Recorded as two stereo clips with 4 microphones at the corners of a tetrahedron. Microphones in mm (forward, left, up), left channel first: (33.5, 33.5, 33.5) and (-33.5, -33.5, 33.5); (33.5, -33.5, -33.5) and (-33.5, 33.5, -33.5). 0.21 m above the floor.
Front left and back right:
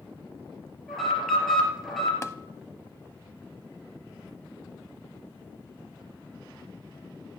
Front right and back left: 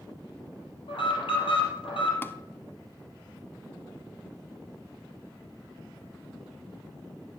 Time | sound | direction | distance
0.9 | an alarm | 40° right | 3.5 m
2.2 | tapping | 5° left | 0.6 m